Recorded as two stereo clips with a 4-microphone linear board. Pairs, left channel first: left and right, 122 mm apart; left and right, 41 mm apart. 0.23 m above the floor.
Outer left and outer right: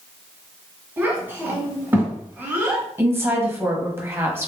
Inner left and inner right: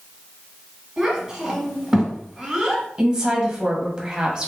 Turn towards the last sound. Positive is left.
turn(degrees=-20)  # may be behind; listen again after turning